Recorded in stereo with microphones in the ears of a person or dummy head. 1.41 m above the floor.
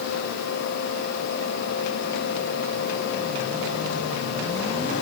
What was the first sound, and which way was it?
Only background noise.